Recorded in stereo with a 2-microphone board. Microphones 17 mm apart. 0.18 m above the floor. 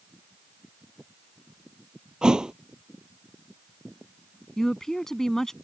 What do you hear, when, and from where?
2.2 s a thud: 55° right (ahead or behind)
4.6 s a woman speaking: 30° left (ahead or behind)